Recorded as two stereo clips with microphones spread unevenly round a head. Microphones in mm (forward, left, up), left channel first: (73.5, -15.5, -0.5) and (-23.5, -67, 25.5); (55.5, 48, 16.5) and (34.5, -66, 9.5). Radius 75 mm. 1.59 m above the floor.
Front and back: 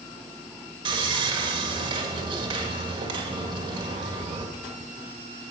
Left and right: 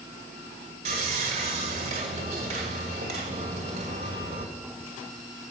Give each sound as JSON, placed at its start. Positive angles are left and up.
{"t": 0.8, "sound": "sawing", "azimuth_deg": -140, "distance_m": 2.0}